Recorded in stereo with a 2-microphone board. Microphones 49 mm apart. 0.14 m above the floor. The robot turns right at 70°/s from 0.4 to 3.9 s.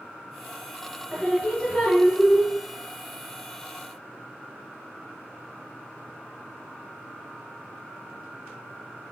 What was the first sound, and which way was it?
Singing, 5° right.